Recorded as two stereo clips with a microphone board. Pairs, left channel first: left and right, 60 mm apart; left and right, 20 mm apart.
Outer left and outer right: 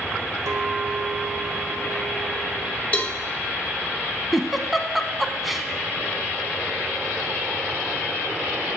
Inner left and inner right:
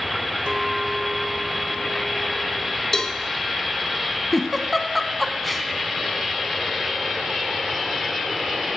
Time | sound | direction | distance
0.5 | a clink | 70° right (ahead or behind) | 1.2 m
2.9 | a cowbell | 20° left (ahead or behind) | 1.0 m
4.3 | a giggle | centre (ahead or behind) | 0.8 m